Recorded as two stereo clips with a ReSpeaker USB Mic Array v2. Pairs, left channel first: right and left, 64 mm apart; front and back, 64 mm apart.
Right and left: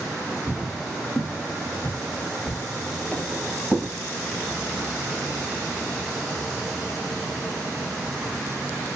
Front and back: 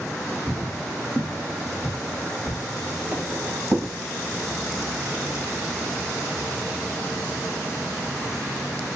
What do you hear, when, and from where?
0.5 s footsteps: 60° right, 1.8 m; by 3.9 s 175° right, 1.8 m